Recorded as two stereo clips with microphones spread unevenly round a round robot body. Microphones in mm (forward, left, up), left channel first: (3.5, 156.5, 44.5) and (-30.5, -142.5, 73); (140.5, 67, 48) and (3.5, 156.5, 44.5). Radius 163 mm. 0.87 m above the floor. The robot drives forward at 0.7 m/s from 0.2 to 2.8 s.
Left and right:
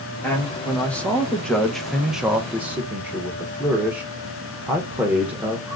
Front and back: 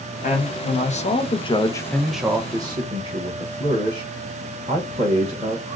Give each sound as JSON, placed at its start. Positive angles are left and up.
{"t": 0.2, "sound": "a man speaking", "azimuth_deg": 0, "distance_m": 1.5}